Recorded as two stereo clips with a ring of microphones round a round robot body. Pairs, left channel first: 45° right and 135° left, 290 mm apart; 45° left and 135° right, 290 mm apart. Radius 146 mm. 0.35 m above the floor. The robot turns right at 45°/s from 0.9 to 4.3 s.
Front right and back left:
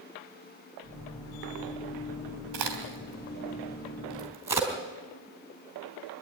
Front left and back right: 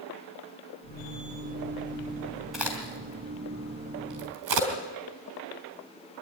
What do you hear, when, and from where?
2.5 s a crack: 135° left, 3.5 m; by 4.7 s 145° right, 3.5 m